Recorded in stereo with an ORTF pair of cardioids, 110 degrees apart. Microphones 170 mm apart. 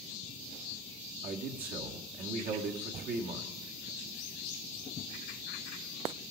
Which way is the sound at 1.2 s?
60° right.